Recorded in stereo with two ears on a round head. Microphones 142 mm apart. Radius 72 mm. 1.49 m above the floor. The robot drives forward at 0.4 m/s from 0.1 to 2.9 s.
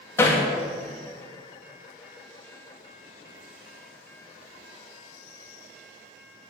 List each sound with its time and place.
0.2 s hammering: 15° left (ahead or behind), 2 m